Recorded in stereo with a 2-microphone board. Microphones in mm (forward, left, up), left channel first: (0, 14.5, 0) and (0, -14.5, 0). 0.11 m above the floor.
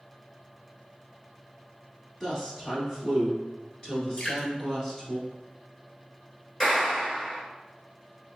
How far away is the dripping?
About 1.4 m.